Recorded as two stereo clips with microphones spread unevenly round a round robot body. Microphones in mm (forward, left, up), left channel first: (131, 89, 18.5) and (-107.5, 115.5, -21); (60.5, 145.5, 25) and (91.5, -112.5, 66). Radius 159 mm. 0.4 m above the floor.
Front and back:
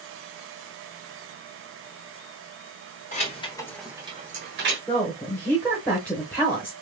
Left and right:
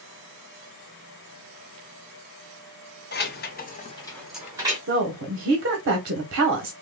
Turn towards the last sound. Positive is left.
turn(degrees=-100)